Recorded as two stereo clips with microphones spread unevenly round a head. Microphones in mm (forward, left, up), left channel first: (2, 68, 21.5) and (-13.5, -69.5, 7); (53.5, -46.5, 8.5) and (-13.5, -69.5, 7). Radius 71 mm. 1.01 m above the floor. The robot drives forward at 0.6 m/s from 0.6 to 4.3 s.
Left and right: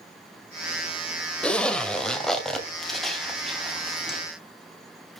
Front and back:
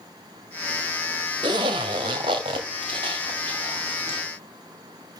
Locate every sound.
1.4 s a zipper: 165° left, 1.6 m; by 4.2 s 170° left, 3 m